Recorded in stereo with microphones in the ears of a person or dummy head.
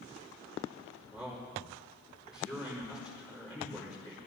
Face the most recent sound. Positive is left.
turn(degrees=15)  # may be behind; listen again after turning